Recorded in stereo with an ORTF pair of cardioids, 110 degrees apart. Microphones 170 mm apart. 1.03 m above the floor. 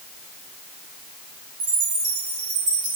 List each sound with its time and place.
1.6 s a chime: 65° right, 6.5 m